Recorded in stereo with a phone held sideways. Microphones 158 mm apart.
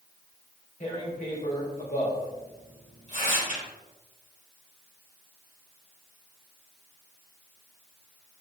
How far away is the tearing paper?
About 3.5 m.